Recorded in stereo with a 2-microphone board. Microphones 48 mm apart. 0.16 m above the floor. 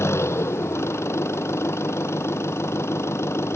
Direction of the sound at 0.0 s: 65° left (ahead or behind).